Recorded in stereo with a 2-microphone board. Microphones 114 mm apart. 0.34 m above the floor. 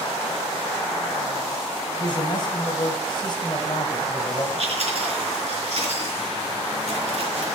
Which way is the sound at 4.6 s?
60° right (ahead or behind).